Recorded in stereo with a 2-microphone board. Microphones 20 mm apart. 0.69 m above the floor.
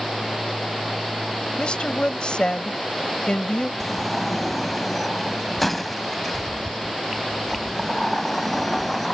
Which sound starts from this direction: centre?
A sliding door, at 3.8 s.